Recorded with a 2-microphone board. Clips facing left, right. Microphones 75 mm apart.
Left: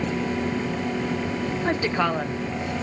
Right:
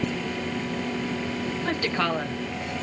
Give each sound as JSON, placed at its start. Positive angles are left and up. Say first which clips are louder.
{"t": 1.6, "sound": "a woman speaking", "louder": "left 3 dB", "side_deg": 25, "distance_m": 0.9}